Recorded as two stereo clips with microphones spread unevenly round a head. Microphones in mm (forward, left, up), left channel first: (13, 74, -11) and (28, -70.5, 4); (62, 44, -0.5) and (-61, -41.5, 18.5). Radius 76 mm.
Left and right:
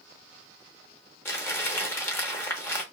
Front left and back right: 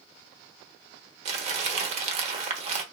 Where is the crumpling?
175° left, 0.9 m.